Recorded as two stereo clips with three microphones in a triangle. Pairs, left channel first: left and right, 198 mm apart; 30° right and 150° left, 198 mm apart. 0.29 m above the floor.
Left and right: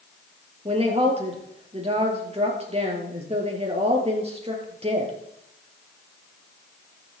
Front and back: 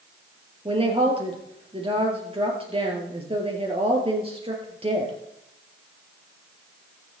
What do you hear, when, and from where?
0.7 s a woman speaking: 150° right, 5 m